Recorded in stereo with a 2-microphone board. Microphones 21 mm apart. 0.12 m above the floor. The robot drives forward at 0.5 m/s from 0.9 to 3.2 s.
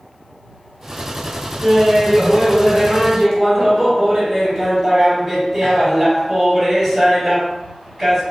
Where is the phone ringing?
No phone ringing in this recording.